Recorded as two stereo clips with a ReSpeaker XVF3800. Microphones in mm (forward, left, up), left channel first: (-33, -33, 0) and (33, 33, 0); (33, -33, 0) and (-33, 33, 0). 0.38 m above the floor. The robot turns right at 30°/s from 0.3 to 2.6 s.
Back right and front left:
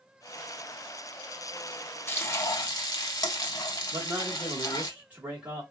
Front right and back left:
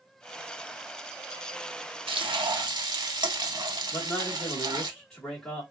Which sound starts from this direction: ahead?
A man speaking, at 3.9 s.